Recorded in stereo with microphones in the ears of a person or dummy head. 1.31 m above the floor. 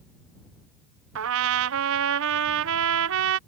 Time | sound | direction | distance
1.1 | a trumpet | 75° right (ahead or behind) | ?